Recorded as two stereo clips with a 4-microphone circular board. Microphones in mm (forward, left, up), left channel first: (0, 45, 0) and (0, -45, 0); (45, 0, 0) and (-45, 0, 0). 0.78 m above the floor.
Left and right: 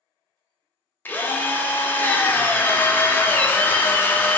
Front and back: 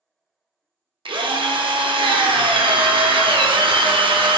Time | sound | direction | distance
1.1 | a drill | 160° left | 0.5 m